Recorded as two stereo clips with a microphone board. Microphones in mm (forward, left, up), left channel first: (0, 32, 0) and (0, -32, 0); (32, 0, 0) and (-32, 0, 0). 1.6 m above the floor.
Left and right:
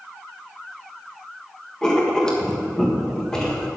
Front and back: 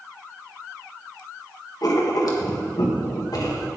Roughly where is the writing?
Ahead.